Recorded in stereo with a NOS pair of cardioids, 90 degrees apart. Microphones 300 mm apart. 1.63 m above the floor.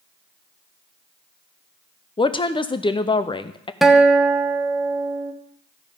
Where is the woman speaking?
15° left, 0.7 m.